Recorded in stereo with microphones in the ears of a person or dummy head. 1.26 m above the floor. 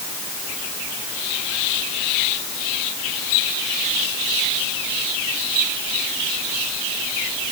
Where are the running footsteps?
I don't hear running footsteps.